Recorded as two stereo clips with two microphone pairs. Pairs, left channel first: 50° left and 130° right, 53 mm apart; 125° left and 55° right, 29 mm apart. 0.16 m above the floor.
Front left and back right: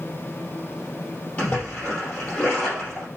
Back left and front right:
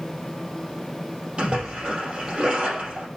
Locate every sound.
1.4 s a splash: 10° right, 5 m